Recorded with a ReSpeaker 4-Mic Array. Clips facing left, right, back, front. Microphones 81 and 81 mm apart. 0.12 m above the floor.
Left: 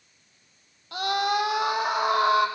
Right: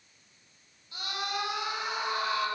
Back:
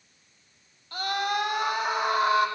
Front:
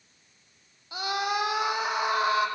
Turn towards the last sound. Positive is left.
turn(degrees=90)